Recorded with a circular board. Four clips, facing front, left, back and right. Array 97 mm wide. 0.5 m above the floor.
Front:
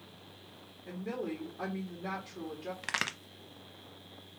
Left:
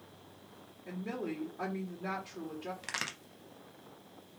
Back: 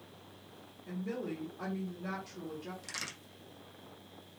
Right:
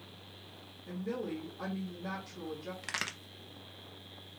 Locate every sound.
0.8 s a woman speaking: 60° left, 1.7 m
2.8 s a crack: straight ahead, 0.6 m